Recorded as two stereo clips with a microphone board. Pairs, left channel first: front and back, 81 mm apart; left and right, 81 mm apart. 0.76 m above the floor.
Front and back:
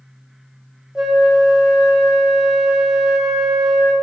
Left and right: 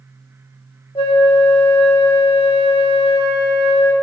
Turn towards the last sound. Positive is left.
turn(degrees=95)